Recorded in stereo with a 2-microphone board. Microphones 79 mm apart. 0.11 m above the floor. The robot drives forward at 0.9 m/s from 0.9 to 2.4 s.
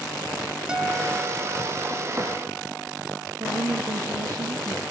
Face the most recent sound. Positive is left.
turn(degrees=-55)  # may be behind; listen again after turning